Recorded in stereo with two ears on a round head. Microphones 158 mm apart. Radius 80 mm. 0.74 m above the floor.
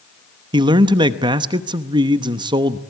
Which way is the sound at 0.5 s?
25° right (ahead or behind).